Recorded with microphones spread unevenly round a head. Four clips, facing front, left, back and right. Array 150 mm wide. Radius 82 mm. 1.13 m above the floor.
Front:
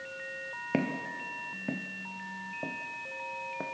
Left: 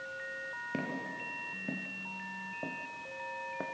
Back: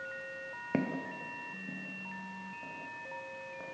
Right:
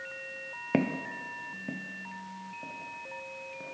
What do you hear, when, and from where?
0.7 s footsteps: 110° right, 1.3 m; by 3.6 s 40° left, 3 m